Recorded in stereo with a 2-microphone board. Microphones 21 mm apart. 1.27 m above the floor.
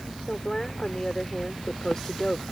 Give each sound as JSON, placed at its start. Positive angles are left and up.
{"t": 0.3, "sound": "a woman speaking", "side_deg": 25}